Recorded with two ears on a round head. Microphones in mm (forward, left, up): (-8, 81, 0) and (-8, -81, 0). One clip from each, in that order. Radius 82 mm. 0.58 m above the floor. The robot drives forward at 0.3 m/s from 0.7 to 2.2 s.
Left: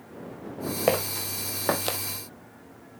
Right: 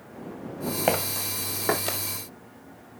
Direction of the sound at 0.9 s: 5° left (ahead or behind).